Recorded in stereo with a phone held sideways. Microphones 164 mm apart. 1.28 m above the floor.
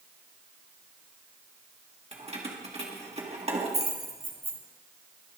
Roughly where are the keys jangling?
Right.